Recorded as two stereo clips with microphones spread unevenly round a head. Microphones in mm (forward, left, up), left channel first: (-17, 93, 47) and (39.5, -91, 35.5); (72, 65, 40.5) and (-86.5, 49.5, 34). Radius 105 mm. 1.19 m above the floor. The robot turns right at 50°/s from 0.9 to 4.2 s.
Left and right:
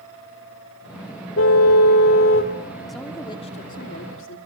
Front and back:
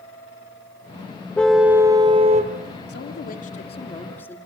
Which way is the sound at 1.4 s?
85° left.